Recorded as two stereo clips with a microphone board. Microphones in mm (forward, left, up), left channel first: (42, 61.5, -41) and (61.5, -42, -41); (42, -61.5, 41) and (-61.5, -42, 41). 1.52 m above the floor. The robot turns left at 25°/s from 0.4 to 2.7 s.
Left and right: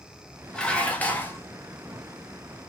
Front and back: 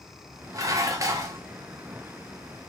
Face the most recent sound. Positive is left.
turn(degrees=120)